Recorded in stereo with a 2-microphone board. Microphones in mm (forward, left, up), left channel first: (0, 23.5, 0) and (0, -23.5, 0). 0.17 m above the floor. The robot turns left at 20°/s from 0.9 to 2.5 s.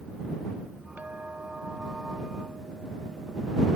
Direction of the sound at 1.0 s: 40° right.